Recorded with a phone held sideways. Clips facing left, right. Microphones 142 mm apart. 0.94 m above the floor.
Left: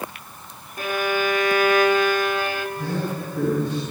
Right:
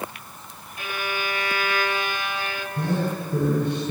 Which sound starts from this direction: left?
A violin, at 0.8 s.